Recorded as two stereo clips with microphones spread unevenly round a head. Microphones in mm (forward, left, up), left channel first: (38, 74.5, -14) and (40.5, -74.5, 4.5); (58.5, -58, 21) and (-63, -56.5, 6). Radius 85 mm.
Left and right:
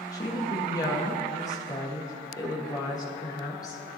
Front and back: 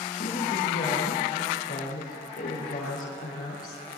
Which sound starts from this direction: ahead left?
A woman speaking, at 0.1 s.